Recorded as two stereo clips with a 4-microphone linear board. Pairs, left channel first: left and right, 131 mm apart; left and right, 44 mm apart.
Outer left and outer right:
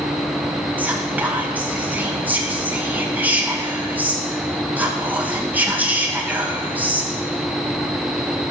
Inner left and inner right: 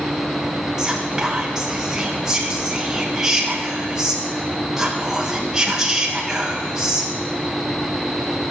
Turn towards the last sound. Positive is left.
turn(degrees=-15)  # may be behind; listen again after turning